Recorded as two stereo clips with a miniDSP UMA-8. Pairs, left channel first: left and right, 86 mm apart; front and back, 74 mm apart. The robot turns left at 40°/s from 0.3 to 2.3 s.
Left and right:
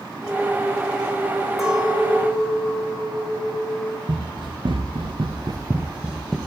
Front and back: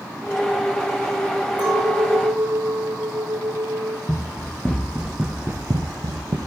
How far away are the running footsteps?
About 2 m.